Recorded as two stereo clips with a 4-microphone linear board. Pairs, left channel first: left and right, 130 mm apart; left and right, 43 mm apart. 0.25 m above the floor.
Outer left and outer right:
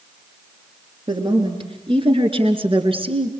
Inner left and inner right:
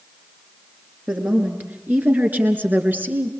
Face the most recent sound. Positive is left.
turn(degrees=-45)  # may be behind; listen again after turning